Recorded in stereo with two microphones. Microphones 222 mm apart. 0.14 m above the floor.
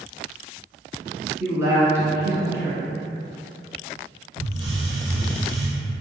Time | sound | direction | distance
1.4 | a woman speaking | 10° right (ahead or behind) | 1.2 m
4.4 | a hiss | 20° right (ahead or behind) | 1.1 m